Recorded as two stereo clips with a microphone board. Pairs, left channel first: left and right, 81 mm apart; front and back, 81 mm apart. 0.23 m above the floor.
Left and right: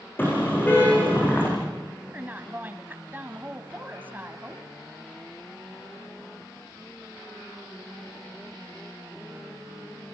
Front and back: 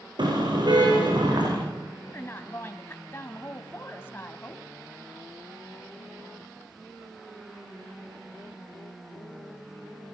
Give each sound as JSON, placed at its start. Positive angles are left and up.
{"t": 0.2, "sound": "a car horn", "azimuth_deg": 155, "distance_m": 9.0}
{"t": 2.1, "sound": "a woman speaking", "azimuth_deg": -40, "distance_m": 1.3}